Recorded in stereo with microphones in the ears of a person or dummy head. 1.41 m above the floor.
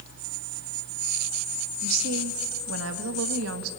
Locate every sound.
1.8 s a woman speaking: 75° right (ahead or behind), 1.5 m